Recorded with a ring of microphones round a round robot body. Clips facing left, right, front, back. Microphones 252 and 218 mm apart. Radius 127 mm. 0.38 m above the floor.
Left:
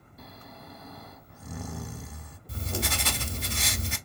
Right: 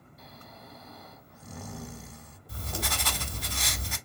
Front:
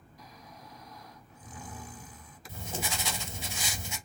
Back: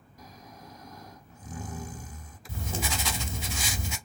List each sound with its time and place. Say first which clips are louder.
0.2 s snoring: left 4 dB, back 3 dB; 130° left, 0.5 m
2.5 s writing: left 4 dB, back 3 dB; 160° left, 0.6 m